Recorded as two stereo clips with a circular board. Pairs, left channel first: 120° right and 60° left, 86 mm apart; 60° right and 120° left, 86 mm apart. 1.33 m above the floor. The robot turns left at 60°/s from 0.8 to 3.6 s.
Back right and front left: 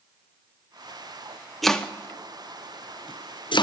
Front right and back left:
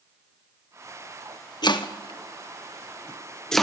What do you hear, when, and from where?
1.6 s chopping: 30° right, 0.6 m; by 3.6 s 150° right, 0.6 m